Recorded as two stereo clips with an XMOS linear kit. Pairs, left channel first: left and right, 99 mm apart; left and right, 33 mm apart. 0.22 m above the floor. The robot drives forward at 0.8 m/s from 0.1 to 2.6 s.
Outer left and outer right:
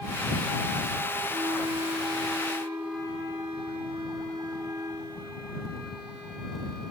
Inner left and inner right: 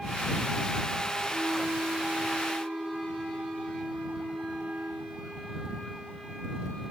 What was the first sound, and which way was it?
A flute, 55° right (ahead or behind).